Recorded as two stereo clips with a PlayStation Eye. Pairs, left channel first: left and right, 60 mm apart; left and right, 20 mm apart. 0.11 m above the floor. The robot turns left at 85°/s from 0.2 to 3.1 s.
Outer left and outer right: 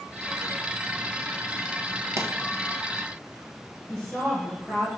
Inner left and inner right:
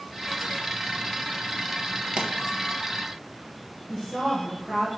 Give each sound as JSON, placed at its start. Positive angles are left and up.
{"t": 2.2, "sound": "a pop", "side_deg": -50, "distance_m": 0.7}
{"t": 3.9, "sound": "a woman speaking", "side_deg": 15, "distance_m": 2.0}